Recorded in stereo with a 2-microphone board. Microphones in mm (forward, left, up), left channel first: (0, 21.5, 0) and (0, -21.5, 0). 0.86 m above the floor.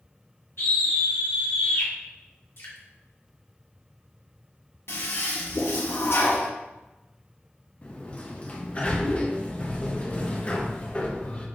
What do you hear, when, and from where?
0.6 s a scream: 70° left (ahead or behind), 0.8 m
2.6 s dripping: 65° left (ahead or behind), 1.2 m
4.9 s a toilet flushing: 75° left (ahead or behind), 0.8 m
7.8 s a sliding door: 30° left (ahead or behind), 0.7 m